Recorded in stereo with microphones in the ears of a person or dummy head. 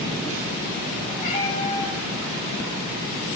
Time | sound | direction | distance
1.2 | a cat meowing | 35° left (ahead or behind) | 4 m